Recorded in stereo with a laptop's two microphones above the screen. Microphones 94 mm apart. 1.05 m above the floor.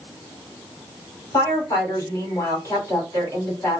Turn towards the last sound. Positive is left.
turn(degrees=35)  # may be behind; listen again after turning